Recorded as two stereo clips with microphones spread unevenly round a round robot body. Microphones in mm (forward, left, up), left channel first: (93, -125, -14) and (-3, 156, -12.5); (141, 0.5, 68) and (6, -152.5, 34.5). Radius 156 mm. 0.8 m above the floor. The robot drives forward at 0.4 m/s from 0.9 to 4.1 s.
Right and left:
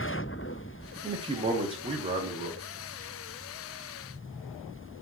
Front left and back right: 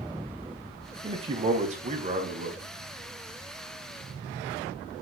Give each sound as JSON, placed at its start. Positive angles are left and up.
{"t": 1.0, "sound": "a man speaking", "azimuth_deg": 180, "distance_m": 0.5}